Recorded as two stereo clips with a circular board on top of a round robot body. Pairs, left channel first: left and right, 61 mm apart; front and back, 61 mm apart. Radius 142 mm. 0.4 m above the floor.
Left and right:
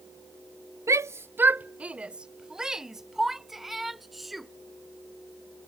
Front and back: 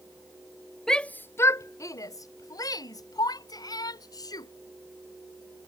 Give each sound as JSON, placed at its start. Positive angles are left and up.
{"t": 0.9, "sound": "a shout", "azimuth_deg": -80}